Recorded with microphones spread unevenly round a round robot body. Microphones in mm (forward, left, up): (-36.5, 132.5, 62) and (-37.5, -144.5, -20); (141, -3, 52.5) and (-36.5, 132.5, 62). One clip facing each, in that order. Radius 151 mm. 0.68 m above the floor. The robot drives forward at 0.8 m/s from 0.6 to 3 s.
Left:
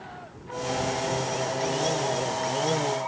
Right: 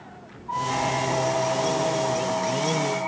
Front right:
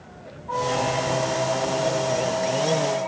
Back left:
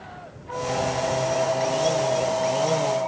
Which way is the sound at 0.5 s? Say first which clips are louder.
Even, front right 1 dB; 90° right.